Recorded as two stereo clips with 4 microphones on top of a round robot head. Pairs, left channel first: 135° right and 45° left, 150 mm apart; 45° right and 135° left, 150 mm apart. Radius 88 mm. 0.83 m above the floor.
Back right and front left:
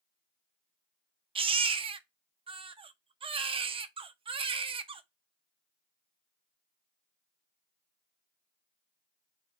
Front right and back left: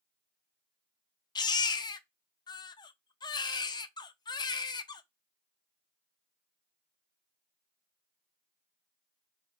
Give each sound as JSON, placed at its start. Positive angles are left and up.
{"t": 1.4, "sound": "a baby crying", "azimuth_deg": 5, "distance_m": 0.6}